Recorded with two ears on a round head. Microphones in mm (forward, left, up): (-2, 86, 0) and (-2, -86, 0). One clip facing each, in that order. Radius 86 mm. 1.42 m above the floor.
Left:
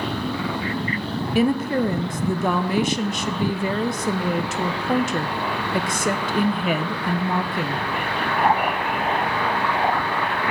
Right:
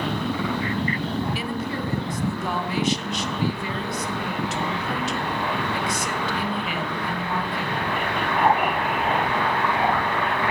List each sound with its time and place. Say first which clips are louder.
1.4 s a woman speaking: left 9 dB; 45° left (ahead or behind), 0.5 m